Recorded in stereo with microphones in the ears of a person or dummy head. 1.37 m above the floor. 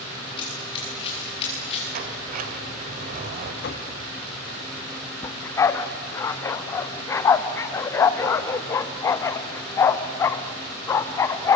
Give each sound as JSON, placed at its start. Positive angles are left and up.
{"t": 0.4, "sound": "running footsteps", "side_deg": 25, "distance_m": 8.5}
{"t": 1.9, "sound": "a sliding door", "side_deg": -45, "distance_m": 2.0}
{"t": 3.6, "sound": "knocking", "side_deg": 55, "distance_m": 2.0}
{"t": 5.2, "sound": "a dog barking", "side_deg": 15, "distance_m": 0.8}